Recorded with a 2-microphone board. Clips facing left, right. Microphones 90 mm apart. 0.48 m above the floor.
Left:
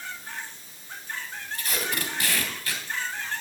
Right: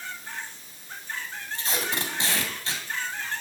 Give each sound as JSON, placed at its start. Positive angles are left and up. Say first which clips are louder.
{"t": 1.5, "sound": "tape being pulled", "louder": "right 1 dB", "side_deg": -25, "distance_m": 2.5}